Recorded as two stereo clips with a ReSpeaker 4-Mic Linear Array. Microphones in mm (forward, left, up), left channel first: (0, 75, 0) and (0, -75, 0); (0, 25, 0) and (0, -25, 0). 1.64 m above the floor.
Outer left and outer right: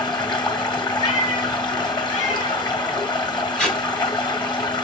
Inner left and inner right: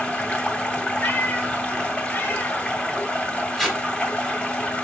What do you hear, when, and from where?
0.0 s running water: 30° left (ahead or behind), 2.0 m
1.0 s a cat meowing: 55° left (ahead or behind), 3.5 m
3.6 s tape being pulled: 5° left (ahead or behind), 2 m